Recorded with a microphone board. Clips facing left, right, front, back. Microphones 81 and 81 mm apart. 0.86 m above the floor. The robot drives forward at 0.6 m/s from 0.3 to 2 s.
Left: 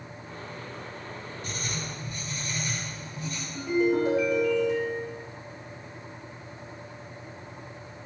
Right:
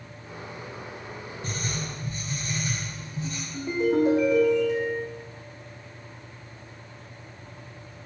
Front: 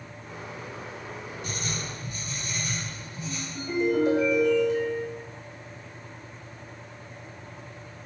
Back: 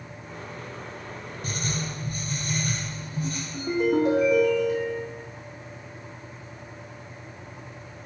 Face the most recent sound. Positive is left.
turn(degrees=-175)